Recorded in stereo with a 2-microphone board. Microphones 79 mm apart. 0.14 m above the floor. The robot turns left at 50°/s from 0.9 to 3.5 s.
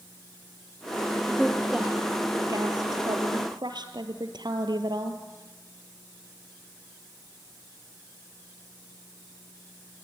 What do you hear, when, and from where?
1.3 s a woman speaking: 5° left, 3 m; by 5.2 s 105° right, 3 m